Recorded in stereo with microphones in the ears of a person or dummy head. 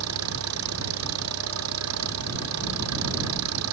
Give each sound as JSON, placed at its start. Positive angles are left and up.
{"t": 0.0, "sound": "an engine running", "side_deg": -85}